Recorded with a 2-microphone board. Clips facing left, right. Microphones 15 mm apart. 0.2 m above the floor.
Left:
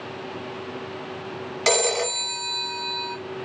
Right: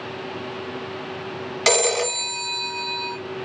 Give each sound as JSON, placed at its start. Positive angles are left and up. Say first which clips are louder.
{"t": 1.7, "sound": "a phone ringing", "louder": "right 2 dB", "side_deg": -15, "distance_m": 0.9}